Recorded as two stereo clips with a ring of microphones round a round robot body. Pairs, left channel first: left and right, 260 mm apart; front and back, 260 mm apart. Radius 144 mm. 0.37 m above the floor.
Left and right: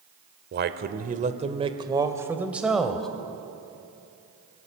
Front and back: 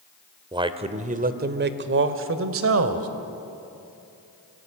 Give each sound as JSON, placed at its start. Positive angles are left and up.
{"t": 0.5, "sound": "a man speaking", "azimuth_deg": -115, "distance_m": 1.3}